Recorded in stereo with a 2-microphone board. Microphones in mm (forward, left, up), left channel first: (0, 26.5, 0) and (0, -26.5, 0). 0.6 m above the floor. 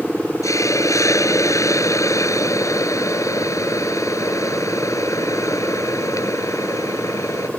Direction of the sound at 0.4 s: 85° left.